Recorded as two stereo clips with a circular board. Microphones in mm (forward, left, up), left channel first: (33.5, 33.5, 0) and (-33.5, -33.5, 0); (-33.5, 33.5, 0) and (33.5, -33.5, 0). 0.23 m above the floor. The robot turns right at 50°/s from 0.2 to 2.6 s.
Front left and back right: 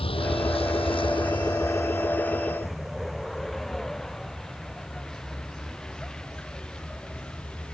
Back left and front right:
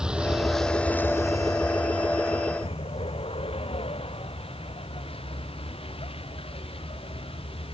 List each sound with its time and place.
0.0 s a vehicle: 40° left; by 7.8 s 125° left